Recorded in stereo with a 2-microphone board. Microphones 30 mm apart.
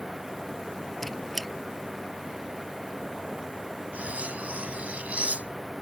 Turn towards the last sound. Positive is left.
turn(degrees=-55)  # may be behind; listen again after turning